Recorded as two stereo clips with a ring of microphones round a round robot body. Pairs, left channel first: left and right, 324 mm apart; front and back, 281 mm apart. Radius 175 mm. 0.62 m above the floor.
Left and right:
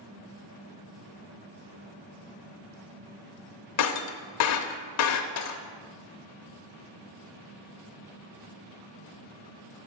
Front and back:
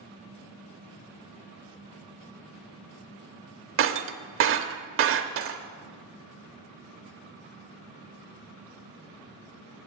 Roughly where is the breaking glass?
Behind left.